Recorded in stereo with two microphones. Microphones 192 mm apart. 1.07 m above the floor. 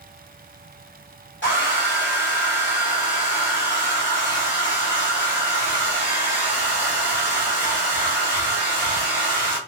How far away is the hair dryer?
About 2 m.